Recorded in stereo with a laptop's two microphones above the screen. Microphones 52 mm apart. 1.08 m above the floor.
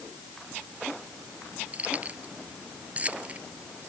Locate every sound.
1.7 s keys jangling: 30° right (ahead or behind)